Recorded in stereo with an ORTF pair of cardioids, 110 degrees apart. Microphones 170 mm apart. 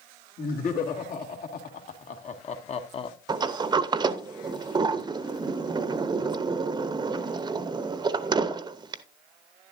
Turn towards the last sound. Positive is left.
turn(degrees=-25)